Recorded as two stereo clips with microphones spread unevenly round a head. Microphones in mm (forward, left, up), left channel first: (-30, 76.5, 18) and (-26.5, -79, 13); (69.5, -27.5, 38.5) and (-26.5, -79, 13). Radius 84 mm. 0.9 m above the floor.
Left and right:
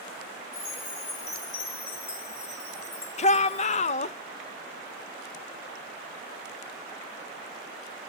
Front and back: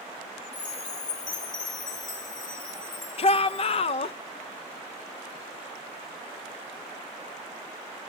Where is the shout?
60° left, 0.7 m.